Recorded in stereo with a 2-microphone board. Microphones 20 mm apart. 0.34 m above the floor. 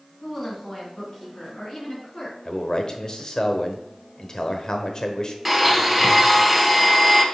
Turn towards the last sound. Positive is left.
turn(degrees=0)  # may be behind; listen again after turning